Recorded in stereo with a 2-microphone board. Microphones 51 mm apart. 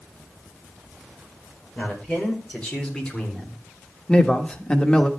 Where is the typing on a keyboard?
No typing on a keyboard in this recording.